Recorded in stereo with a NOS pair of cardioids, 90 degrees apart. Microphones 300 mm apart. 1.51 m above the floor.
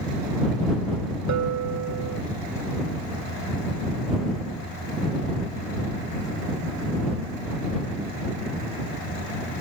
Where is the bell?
65° right.